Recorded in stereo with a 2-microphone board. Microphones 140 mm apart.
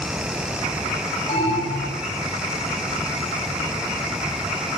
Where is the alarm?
45° left (ahead or behind), 9 m.